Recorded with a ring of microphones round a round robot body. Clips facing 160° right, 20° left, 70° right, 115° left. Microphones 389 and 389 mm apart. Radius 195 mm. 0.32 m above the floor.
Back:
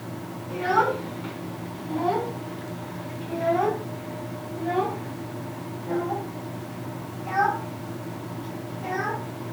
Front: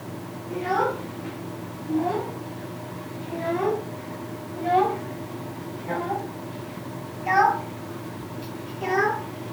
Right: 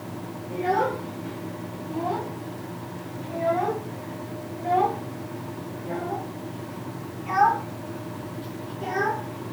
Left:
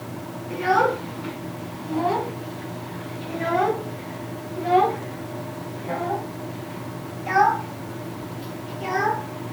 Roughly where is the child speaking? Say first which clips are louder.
Even, left 3 dB; behind.